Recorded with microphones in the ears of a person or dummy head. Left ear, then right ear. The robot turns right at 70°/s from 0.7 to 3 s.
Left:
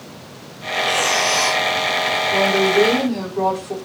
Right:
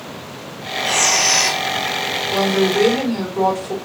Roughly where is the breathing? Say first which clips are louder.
Right 1 dB; behind right.